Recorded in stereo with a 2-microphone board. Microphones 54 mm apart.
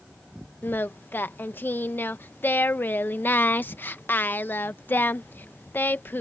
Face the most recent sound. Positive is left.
turn(degrees=40)  # may be behind; listen again after turning